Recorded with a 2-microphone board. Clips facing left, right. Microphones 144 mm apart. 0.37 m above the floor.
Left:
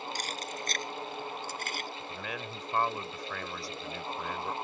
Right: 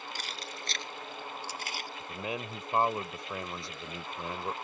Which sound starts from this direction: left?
Keys jangling, at 0.1 s.